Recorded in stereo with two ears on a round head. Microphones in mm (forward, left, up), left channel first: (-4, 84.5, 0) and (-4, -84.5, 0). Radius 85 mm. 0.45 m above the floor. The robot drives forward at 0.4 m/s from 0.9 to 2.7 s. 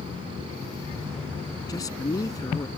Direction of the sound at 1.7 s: 20° left (ahead or behind).